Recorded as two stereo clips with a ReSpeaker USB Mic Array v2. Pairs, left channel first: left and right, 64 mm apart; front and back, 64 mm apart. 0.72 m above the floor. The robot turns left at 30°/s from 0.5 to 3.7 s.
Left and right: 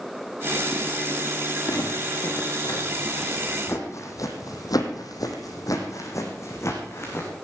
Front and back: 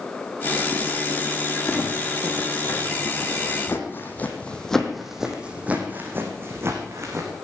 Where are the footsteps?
80° left, 4 m; by 7.3 s 140° left, 3.5 m.